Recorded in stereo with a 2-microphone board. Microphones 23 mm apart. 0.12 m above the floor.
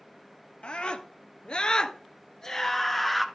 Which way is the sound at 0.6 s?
55° left (ahead or behind).